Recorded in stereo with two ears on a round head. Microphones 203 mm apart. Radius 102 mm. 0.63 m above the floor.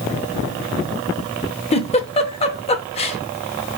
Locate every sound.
1.7 s a giggle: 25° left (ahead or behind), 0.6 m